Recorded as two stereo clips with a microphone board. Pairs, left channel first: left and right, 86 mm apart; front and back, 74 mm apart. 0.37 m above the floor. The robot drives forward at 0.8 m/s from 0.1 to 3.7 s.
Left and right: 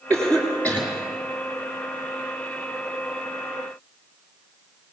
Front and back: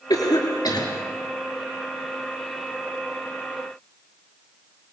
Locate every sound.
0.1 s a cough: 15° left, 6 m